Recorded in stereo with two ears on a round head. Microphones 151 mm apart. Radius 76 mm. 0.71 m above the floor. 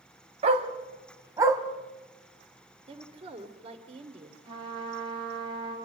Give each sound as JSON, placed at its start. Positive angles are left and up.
{"t": 0.4, "sound": "a dog barking", "side_deg": -40, "distance_m": 1.9}
{"t": 2.9, "sound": "a woman speaking", "side_deg": -35, "distance_m": 2.0}
{"t": 4.5, "sound": "a trumpet", "side_deg": -30, "distance_m": 6.5}